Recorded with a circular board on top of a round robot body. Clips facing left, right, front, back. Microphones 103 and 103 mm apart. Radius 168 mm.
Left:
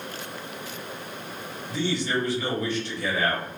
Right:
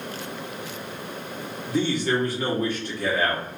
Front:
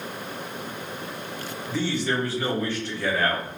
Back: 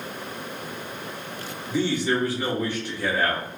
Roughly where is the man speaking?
Right.